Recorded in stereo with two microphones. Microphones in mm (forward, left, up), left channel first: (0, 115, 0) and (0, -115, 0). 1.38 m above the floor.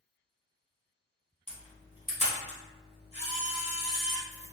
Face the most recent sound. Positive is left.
turn(degrees=30)  # may be behind; listen again after turning